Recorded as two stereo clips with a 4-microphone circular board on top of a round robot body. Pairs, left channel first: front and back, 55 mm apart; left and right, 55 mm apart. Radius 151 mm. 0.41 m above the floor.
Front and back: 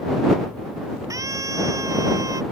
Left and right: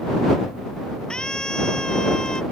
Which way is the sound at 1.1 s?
165° left.